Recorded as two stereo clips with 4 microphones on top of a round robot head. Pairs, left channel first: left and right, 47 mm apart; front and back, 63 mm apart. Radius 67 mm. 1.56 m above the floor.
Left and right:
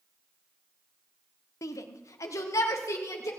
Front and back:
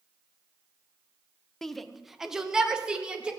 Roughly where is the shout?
Left.